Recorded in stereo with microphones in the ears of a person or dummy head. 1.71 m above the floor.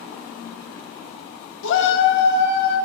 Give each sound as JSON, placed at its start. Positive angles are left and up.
{"t": 1.6, "sound": "a shout", "side_deg": 75, "distance_m": 1.0}